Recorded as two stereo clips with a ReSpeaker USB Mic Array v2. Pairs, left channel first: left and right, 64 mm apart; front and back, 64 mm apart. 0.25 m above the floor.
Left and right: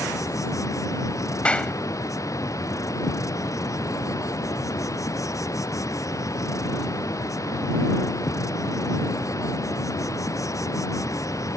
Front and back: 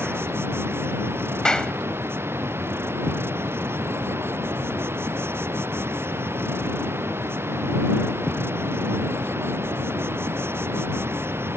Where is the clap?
55° left.